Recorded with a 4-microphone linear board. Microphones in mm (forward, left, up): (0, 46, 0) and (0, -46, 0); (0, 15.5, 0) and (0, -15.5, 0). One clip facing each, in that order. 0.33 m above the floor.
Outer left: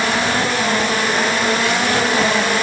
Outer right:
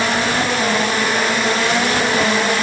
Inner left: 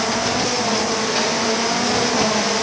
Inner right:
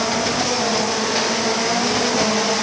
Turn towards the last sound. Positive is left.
No sound to turn to.